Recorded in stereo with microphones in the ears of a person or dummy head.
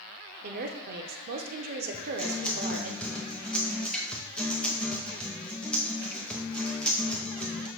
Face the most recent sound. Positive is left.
turn(degrees=5)  # may be behind; listen again after turning